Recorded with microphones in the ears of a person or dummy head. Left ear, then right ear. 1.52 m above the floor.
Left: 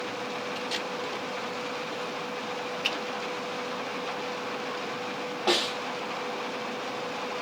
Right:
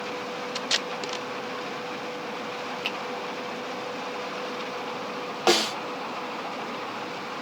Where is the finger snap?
5° left (ahead or behind), 1.0 m.